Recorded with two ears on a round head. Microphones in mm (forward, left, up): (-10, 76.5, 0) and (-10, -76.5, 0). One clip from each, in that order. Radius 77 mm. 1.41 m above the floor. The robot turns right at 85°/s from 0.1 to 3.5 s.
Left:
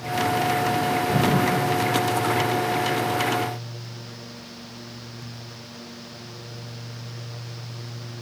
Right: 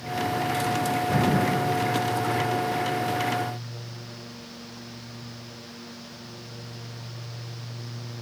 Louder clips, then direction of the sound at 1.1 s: Left 1 dB; 30° right.